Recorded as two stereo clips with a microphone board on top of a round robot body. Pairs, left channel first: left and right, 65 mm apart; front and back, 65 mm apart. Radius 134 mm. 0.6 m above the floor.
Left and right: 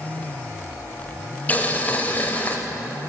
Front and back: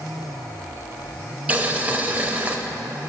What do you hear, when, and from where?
1.5 s boiling: 130° left, 0.9 m